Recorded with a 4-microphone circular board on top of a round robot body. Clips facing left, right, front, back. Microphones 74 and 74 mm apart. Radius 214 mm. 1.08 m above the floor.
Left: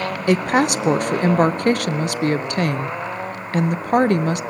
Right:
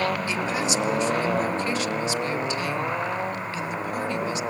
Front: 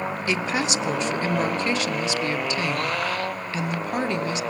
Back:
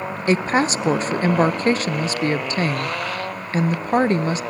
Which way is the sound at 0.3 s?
125° left.